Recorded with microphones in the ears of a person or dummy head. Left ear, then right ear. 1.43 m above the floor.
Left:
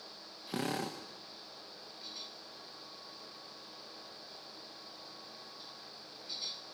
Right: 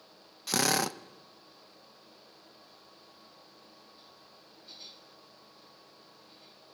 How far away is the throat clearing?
I don't hear throat clearing.